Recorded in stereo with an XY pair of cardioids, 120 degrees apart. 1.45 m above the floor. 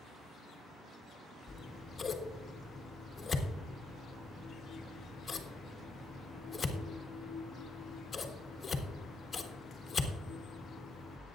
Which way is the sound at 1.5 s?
25° left.